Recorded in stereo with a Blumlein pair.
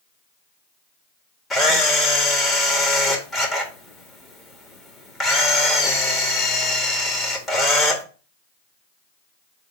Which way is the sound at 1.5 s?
15° left.